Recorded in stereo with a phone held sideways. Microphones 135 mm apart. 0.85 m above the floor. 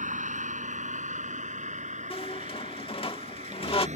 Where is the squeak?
45° left (ahead or behind).